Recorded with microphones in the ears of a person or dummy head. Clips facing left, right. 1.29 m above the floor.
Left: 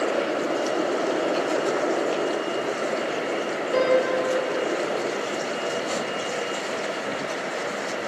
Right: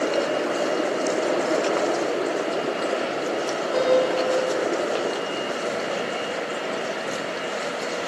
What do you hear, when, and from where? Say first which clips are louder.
3.7 s a piano: right 1 dB; 50° left (ahead or behind), 4.5 m